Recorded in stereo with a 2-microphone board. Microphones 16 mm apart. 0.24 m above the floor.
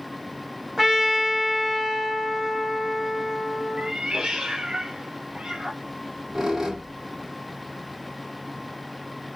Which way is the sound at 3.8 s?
75° right (ahead or behind).